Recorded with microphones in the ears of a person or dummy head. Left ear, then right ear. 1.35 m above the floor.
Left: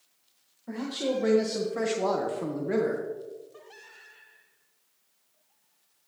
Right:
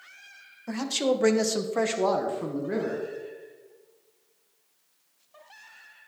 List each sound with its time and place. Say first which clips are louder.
0.7 s a man speaking: right 4 dB; 75° right (ahead or behind), 1.6 m; by 3.0 s 30° left (ahead or behind), 1.6 m